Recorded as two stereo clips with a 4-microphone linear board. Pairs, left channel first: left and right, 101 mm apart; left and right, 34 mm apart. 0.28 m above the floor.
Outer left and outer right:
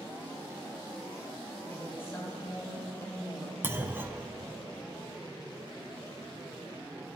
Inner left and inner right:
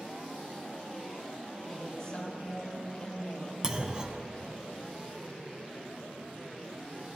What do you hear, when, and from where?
1.7 s a woman speaking: 25° left (ahead or behind), 1.9 m
3.6 s a clunk: 20° right (ahead or behind), 0.5 m